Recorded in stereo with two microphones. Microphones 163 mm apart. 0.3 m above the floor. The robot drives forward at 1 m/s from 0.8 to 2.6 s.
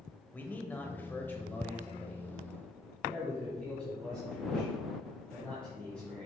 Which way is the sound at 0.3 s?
10° left (ahead or behind).